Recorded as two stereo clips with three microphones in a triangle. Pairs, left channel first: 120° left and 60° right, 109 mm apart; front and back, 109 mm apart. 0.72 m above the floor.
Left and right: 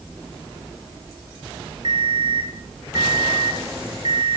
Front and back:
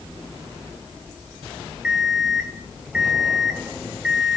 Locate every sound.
1.8 s an alarm clock: 100° right, 2.5 m